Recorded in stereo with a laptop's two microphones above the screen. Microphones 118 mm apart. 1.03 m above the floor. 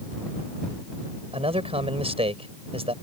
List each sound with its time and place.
1.3 s a man speaking: 55° right (ahead or behind)